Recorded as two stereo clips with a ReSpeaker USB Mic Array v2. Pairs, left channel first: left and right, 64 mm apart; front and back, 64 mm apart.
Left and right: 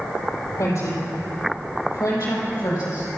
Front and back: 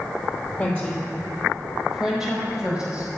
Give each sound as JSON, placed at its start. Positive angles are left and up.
{"t": 0.6, "sound": "a woman speaking", "azimuth_deg": 75, "distance_m": 4.0}